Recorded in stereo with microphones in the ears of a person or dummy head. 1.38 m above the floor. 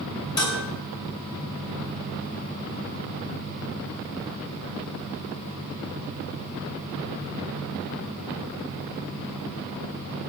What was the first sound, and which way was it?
Dishes clattering, 25° left (ahead or behind).